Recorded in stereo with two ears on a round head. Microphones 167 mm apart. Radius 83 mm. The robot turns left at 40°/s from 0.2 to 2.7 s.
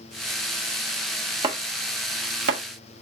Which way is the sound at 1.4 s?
25° right (ahead or behind).